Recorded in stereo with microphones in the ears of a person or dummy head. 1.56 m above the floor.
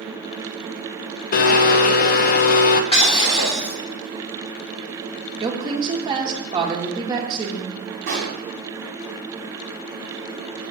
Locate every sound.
1.3 s a blender: 55° left (ahead or behind), 0.6 m
2.9 s breaking glass: 35° left (ahead or behind), 2.5 m
5.4 s a woman speaking: 25° right (ahead or behind), 1.5 m
8.1 s a pop: 50° right (ahead or behind), 1.9 m